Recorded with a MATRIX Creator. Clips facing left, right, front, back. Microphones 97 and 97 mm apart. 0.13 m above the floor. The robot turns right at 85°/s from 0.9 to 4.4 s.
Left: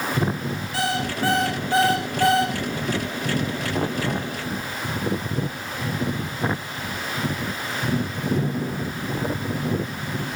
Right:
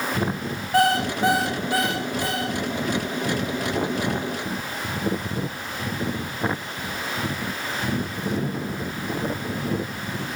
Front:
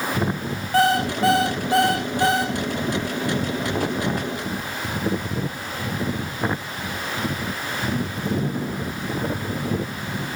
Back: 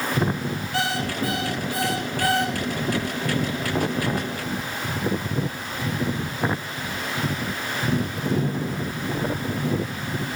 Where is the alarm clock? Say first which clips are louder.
Right 7 dB, front 9 dB; 50° right, 5.5 m; by 2.5 s 90° left, 5.5 m.